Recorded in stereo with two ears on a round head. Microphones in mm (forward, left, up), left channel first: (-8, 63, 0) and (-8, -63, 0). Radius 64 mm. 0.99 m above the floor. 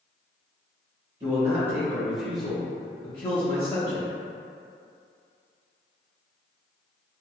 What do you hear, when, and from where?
1.2 s a man speaking: 30° right (ahead or behind), 1.2 m; by 4.1 s 50° left (ahead or behind), 1.4 m